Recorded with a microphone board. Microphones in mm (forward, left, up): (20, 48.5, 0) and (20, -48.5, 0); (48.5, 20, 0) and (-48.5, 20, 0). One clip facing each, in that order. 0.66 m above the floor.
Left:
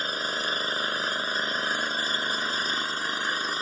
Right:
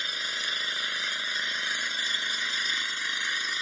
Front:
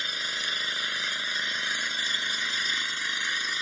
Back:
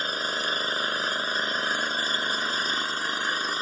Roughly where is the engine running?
Behind left.